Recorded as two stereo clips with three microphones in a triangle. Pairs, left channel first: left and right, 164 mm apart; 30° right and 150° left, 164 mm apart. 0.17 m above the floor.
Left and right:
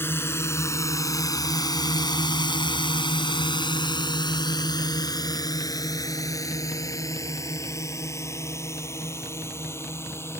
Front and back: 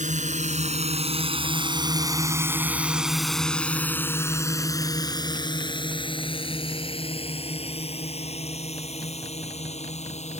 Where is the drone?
160° left; by 10.4 s 15° left.